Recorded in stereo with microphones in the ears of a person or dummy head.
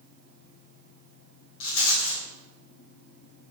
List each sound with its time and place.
1.6 s a rattle: 75° left (ahead or behind), 1.8 m